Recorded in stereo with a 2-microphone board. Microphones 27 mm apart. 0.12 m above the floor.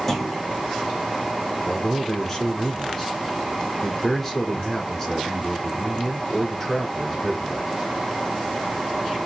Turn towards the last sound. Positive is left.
turn(degrees=10)  # may be behind; listen again after turning